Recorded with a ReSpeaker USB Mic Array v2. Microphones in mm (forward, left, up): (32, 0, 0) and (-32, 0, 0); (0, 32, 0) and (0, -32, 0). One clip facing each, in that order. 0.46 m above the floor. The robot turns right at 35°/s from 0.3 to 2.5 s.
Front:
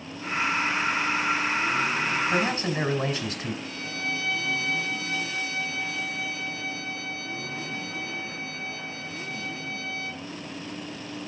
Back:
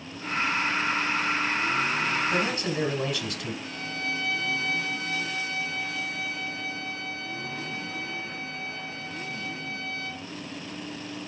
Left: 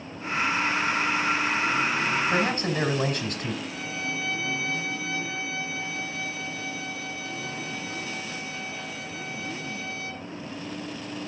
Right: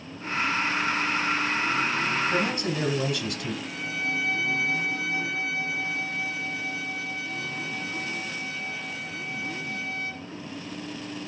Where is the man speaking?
55° left, 2 m; by 3.5 s 60° left, 2 m.